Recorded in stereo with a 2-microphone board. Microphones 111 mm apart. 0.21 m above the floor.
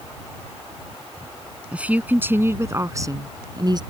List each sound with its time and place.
1.7 s a woman speaking: 10° right (ahead or behind); by 3.8 s 40° right (ahead or behind)